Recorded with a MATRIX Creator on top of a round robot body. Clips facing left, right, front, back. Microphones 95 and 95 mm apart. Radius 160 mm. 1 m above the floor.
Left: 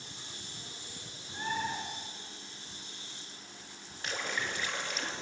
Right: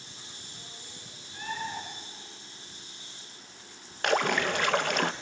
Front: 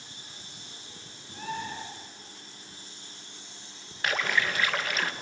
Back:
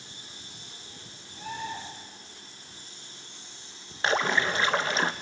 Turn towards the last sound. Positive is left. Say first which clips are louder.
# right 11 dB, back 3 dB
turn(degrees=-115)